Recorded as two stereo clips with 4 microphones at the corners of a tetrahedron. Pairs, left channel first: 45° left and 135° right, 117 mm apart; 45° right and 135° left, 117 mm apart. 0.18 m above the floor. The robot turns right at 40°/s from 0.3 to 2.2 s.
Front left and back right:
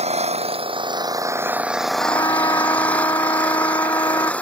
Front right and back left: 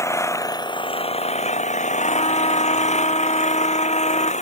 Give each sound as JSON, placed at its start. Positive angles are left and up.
{"t": 0.0, "sound": "an engine running", "azimuth_deg": -110}
{"t": 2.0, "sound": "a trumpet", "azimuth_deg": -20}